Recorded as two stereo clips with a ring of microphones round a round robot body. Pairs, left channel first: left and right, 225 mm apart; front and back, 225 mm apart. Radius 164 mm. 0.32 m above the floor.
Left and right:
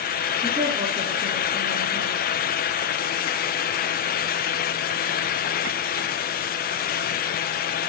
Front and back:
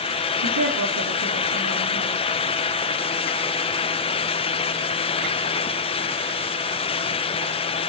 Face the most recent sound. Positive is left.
turn(degrees=-175)